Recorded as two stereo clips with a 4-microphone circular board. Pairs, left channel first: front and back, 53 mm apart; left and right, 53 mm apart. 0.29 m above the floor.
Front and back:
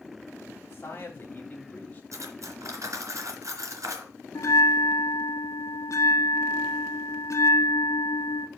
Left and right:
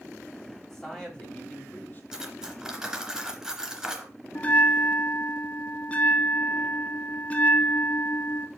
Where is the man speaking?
5° left, 1.7 m; by 2.0 s 55° left, 1.8 m.